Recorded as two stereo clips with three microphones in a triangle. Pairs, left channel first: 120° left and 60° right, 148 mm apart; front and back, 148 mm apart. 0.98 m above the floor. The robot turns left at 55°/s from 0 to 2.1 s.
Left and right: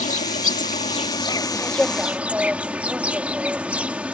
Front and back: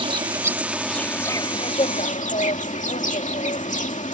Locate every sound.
0.0 s an insect: 135° left; by 4.1 s 20° left